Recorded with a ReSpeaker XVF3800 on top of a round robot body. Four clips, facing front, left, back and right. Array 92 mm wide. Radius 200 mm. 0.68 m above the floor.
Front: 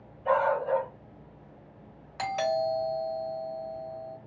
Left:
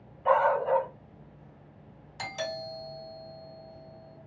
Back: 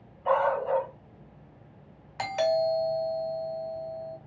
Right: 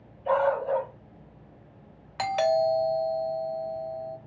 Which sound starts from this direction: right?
A doorbell, at 2.2 s.